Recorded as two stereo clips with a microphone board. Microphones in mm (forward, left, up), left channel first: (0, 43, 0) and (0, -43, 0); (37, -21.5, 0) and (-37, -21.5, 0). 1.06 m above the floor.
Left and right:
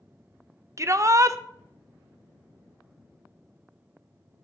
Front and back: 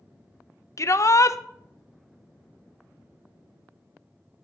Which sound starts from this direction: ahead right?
A shout, at 0.8 s.